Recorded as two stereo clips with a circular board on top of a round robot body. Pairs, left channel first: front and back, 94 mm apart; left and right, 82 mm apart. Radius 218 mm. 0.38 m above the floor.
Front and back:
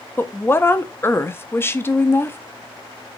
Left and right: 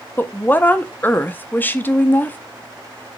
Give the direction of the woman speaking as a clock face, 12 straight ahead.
11 o'clock.